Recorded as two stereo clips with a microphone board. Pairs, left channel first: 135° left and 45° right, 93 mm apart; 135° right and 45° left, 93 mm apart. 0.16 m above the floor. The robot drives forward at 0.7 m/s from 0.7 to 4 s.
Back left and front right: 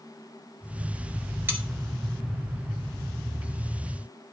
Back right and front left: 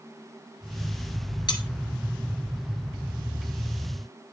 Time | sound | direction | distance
1.5 | cutlery clinking | 105° right | 1.4 m